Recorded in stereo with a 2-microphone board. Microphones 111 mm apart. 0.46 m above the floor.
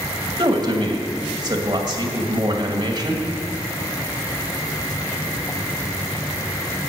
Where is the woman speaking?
40° right (ahead or behind), 2 m.